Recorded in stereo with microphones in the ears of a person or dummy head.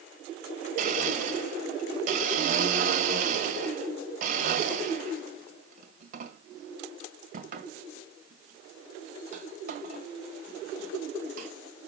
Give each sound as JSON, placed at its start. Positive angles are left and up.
{"t": 0.8, "sound": "a blender", "side_deg": -55, "distance_m": 1.8}